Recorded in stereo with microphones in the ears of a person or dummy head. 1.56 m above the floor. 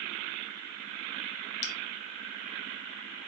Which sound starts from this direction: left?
A bell, at 1.6 s.